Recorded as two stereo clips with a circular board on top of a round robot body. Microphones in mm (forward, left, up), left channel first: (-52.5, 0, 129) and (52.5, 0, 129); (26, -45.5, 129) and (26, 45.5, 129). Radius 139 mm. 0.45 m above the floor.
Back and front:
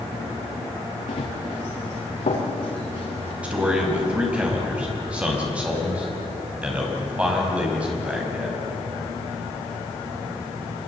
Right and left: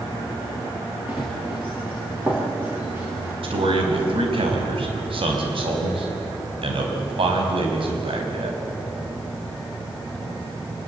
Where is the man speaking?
80° left, 5 m.